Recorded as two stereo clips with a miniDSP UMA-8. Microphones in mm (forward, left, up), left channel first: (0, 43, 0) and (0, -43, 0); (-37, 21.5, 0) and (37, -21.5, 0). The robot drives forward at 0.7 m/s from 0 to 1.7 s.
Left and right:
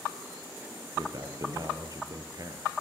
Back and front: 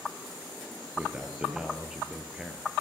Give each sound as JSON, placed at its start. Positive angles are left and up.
{"t": 1.0, "sound": "a man speaking", "azimuth_deg": -95, "distance_m": 2.5}